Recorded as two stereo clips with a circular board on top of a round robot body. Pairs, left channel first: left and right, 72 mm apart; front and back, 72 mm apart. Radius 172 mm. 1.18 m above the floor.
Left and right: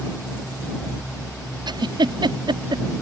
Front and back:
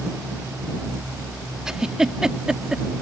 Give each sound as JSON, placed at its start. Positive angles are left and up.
{"t": 1.7, "sound": "a giggle", "azimuth_deg": -95}